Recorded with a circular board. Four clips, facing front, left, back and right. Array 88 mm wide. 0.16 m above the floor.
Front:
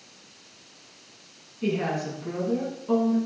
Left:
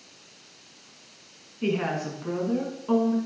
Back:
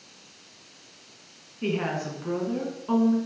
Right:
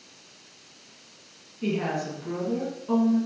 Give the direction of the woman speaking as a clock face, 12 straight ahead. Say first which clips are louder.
Left 1 dB, front 1 dB; 8 o'clock.